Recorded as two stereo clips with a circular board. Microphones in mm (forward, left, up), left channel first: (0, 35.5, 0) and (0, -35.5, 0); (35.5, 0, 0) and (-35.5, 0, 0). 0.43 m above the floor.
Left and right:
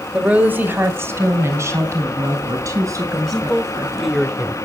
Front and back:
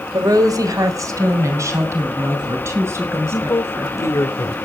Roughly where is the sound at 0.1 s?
Behind.